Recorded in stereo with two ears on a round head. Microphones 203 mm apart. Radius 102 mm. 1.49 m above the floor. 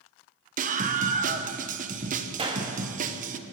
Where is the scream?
35° right (ahead or behind), 1.2 m.